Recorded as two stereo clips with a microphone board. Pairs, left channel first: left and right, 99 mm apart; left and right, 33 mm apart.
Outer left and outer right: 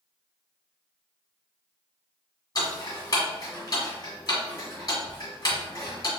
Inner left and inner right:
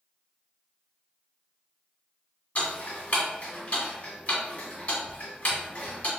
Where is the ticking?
40° left (ahead or behind), 1.8 m.